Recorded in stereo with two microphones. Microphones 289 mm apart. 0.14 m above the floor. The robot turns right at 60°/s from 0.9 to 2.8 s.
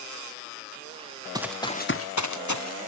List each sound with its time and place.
1.4 s running footsteps: 15° right (ahead or behind), 1.0 m; by 2.9 s 45° left (ahead or behind), 1.1 m